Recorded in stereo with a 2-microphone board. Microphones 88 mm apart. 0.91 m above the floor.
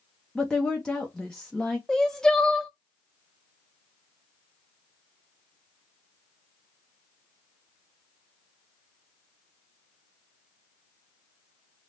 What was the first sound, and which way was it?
A woman speaking, 5° left (ahead or behind).